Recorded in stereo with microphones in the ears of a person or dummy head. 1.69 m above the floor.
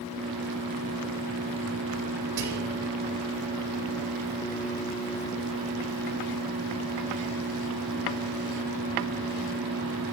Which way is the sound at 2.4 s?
85° right.